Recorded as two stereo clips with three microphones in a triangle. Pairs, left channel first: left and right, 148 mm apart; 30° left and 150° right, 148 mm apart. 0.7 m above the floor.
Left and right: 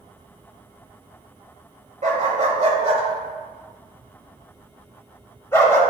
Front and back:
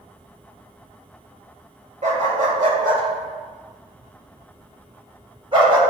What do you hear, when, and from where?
2.0 s a dog barking: 120° right, 1.5 m; by 5.8 s 160° left, 1.6 m